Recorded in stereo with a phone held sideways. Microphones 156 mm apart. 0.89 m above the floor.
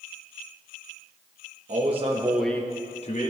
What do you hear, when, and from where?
1.7 s a man speaking: 50° right (ahead or behind), 1.1 m; by 3.3 s 55° left (ahead or behind), 1.2 m